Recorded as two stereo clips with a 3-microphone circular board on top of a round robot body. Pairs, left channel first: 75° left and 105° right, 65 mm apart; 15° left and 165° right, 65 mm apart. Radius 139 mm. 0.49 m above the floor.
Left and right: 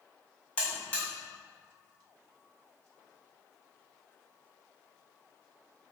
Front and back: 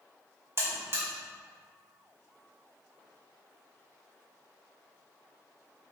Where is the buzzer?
150° left, 2.5 m.